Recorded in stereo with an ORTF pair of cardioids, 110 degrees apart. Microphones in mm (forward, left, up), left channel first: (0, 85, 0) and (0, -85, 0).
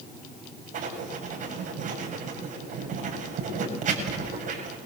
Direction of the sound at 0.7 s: 50° right.